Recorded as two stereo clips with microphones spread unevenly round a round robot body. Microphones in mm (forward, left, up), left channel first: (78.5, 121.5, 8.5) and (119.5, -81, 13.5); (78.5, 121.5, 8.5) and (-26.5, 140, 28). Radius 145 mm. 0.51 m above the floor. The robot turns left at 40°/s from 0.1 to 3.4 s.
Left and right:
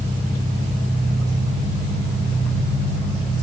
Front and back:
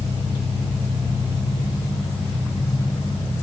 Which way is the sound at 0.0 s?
165° left.